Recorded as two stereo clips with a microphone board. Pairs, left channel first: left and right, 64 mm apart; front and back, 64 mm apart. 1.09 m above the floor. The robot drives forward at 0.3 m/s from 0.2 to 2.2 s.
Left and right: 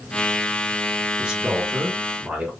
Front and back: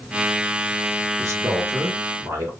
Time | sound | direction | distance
1.2 | a man speaking | 160° right | 1.1 m